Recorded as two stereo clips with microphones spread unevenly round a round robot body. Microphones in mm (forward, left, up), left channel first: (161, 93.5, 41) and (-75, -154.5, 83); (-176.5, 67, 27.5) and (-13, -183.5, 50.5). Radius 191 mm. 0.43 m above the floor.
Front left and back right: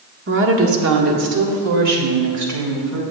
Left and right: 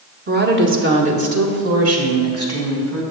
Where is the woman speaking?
95° right, 0.9 m; by 3.0 s 90° right, 2.5 m.